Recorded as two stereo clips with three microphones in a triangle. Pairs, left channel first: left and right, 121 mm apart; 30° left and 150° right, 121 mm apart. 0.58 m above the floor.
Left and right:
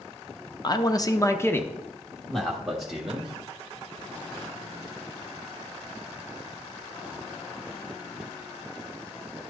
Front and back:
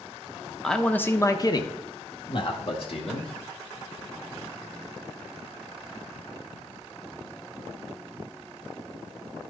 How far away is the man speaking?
About 0.7 m.